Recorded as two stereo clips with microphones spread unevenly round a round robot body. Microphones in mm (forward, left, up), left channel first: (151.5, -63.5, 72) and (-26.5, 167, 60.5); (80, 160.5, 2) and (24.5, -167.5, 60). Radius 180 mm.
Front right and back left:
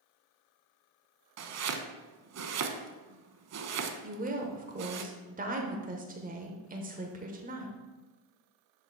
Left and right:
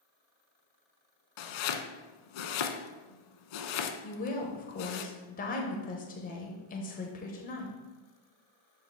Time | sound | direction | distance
1.4 | chopping | 85° left | 0.8 m
4.0 | a woman speaking | 95° left | 0.9 m